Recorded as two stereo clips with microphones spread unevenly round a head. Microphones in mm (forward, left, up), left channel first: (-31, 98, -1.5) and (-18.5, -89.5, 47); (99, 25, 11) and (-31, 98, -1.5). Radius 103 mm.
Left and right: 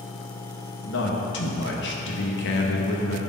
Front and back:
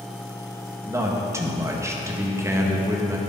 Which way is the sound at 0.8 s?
80° left.